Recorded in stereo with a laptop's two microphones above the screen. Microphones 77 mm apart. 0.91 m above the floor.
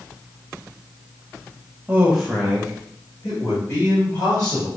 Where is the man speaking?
25° right (ahead or behind), 0.8 m; by 4.7 s 50° left (ahead or behind), 2.5 m.